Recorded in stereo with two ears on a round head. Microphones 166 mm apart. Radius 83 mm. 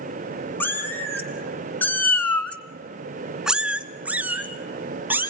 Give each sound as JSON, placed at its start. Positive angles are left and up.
{"t": 0.6, "sound": "a cat meowing", "side_deg": 10, "distance_m": 2.5}